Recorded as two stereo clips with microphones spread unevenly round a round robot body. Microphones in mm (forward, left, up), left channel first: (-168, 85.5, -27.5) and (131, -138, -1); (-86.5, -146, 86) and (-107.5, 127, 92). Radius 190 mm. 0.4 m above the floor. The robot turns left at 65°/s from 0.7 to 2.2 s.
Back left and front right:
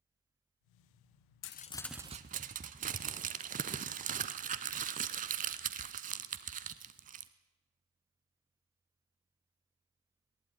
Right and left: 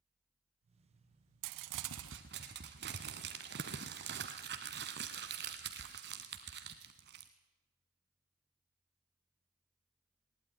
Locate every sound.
1.4 s crumpling: 85° left, 0.7 m; by 7.3 s 35° left, 0.7 m